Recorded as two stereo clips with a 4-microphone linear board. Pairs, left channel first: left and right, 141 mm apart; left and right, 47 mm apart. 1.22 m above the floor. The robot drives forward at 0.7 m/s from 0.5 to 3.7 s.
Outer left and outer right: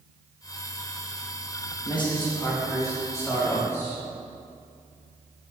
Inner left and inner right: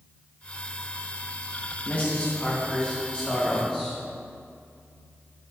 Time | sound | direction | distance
1.9 | a man speaking | 35° left (ahead or behind) | 1.4 m